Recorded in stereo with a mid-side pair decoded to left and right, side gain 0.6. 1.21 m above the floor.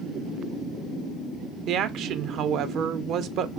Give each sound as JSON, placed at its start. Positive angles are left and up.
{"t": 1.7, "sound": "a woman speaking", "azimuth_deg": -55, "distance_m": 0.6}